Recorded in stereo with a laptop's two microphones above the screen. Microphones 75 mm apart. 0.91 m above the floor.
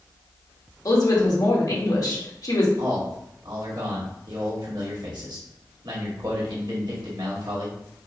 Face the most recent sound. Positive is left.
turn(degrees=-70)  # may be behind; listen again after turning